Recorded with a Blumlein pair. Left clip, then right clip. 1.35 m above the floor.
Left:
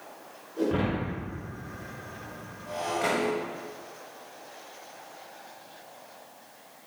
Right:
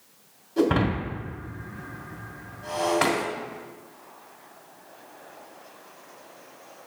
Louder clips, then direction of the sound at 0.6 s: Right 5 dB; 45° right.